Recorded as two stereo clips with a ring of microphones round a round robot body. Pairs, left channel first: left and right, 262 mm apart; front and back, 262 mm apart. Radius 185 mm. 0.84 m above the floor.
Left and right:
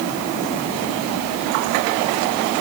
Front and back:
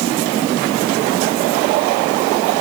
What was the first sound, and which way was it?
Only background noise.